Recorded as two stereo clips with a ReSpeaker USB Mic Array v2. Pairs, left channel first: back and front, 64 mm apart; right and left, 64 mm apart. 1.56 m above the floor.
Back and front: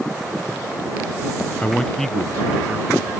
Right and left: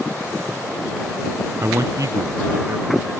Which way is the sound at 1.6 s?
115° left.